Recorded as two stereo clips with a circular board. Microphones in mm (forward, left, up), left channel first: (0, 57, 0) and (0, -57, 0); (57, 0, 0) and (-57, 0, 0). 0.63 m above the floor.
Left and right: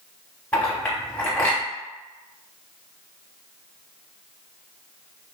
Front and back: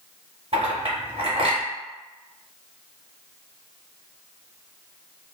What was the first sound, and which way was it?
A clink, 165° left.